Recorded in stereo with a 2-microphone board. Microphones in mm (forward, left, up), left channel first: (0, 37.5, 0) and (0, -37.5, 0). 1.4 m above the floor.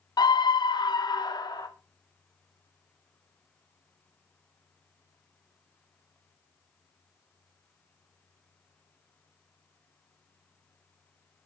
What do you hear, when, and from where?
0.2 s a scream: 65° left (ahead or behind), 0.6 m